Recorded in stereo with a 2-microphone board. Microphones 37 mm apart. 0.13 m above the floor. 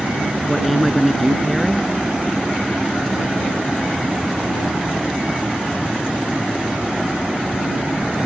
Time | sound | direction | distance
0.5 | a woman speaking | centre (ahead or behind) | ?